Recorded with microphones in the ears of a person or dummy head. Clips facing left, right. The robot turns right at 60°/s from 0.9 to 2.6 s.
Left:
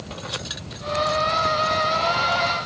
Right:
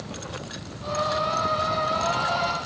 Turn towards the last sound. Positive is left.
No sound to turn to.